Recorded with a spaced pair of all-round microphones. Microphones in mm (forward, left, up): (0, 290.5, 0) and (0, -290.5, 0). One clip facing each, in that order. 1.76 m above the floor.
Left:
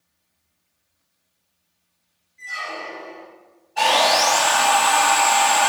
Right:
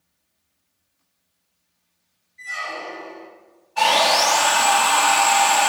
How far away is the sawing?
About 1.0 m.